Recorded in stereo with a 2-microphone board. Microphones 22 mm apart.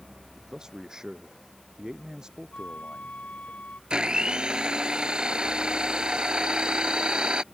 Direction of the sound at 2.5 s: 90° left.